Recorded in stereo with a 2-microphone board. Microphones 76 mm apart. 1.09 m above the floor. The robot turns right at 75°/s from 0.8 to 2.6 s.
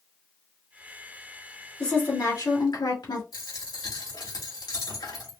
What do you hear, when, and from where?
1.8 s a woman speaking: 15° left, 2.0 m; by 3.2 s 75° left, 2.0 m
3.3 s a dropped coin: 70° left (ahead or behind), 2.5 m